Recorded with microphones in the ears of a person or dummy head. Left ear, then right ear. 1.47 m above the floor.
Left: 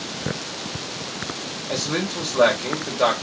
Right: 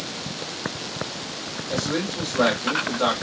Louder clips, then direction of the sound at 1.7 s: Left 1 dB; 70° left (ahead or behind).